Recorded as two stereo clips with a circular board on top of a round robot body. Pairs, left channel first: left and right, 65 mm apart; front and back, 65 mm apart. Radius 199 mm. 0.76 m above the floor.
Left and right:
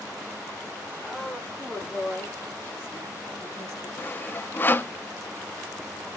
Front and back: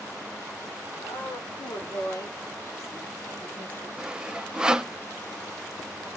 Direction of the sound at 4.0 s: 110° left.